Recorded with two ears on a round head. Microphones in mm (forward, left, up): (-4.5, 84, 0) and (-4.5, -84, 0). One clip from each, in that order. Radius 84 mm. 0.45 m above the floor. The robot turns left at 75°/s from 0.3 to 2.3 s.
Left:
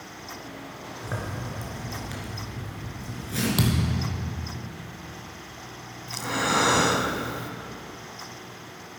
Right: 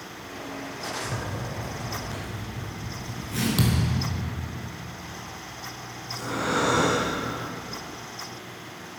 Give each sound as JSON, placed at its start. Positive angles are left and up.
{"t": 1.0, "sound": "a zipper", "azimuth_deg": 105, "distance_m": 2.5}
{"t": 3.6, "sound": "a thud", "side_deg": 10, "distance_m": 1.5}
{"t": 6.1, "sound": "breathing", "side_deg": 50, "distance_m": 1.1}